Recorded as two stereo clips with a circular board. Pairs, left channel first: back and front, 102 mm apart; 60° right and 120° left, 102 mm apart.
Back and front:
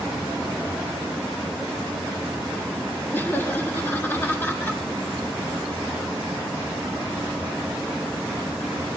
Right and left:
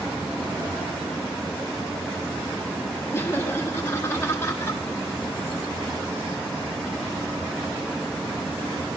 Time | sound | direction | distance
3.1 | laughter | 115° right | 1.4 m